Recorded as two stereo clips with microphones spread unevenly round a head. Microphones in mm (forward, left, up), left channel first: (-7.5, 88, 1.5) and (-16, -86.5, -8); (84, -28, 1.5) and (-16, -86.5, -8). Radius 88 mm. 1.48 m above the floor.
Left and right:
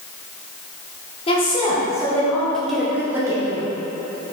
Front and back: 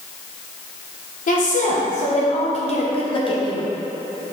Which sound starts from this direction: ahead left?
A woman speaking, at 1.3 s.